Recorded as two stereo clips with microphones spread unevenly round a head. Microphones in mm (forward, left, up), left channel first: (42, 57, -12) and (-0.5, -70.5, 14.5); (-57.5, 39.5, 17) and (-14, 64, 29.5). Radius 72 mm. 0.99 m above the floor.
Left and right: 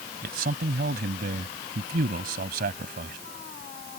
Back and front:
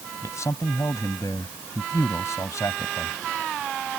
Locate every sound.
0.2 s a man speaking: 95° right